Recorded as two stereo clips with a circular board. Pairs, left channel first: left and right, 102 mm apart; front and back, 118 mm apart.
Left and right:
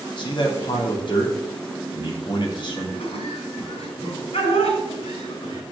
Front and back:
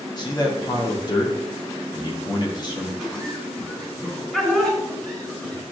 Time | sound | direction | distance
0.2 | a man speaking | 55° left | 2.5 m
3.0 | laughter | 80° left | 6.5 m